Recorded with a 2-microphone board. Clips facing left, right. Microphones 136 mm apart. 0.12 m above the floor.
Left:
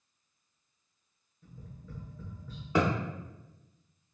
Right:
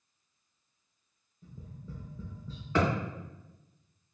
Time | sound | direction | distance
1.4 | tapping | 30° right (ahead or behind) | 0.8 m
2.8 | a thud | 15° left (ahead or behind) | 1.6 m